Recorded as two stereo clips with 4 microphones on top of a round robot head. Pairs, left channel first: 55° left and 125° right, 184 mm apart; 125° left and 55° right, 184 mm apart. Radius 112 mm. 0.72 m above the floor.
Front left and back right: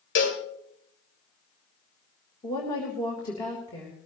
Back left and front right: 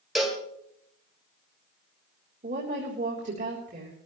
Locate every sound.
0.1 s a cowbell: 35° left, 1.9 m
2.4 s a woman speaking: 10° right, 3.5 m